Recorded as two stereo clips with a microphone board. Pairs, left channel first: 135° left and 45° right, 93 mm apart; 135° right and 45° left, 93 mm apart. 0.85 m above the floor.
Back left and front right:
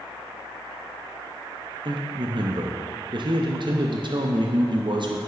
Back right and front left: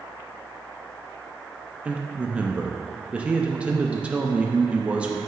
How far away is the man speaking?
About 0.5 m.